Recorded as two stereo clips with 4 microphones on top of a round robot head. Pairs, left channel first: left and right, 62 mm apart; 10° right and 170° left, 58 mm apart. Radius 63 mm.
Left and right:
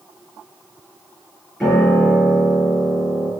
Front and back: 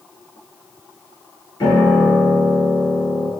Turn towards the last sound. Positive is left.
turn(degrees=5)